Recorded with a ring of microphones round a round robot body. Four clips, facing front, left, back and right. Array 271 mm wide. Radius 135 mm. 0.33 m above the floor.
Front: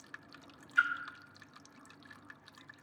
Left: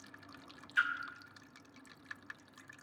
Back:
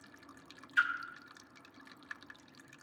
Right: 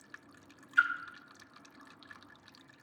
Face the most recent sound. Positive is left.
turn(degrees=140)